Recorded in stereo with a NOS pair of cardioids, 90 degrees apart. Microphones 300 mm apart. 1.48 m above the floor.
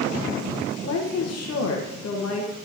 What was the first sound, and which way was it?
A woman speaking, 55° left.